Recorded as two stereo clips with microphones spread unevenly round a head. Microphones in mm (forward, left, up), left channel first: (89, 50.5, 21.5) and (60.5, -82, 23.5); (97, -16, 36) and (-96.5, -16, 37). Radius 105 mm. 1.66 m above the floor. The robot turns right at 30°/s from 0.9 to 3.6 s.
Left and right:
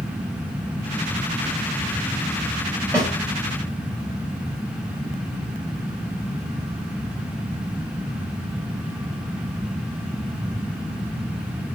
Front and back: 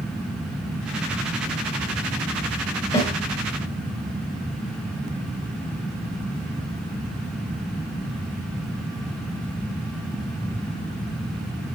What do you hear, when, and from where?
2.9 s a snare drum: 50° right, 1.8 m; by 3.1 s 45° right, 1.8 m